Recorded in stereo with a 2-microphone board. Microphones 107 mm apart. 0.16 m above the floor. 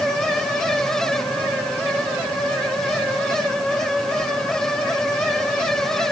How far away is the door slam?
I don't hear a door slam.